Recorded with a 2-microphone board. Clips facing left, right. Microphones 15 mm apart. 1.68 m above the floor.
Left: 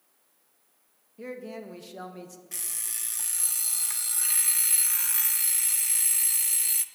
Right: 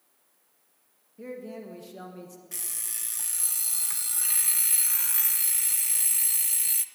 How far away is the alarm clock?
About 0.7 m.